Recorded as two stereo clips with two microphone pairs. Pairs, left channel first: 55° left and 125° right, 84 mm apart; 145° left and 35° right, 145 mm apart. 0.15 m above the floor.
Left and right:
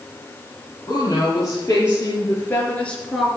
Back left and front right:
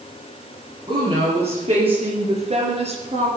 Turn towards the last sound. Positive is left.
turn(degrees=-30)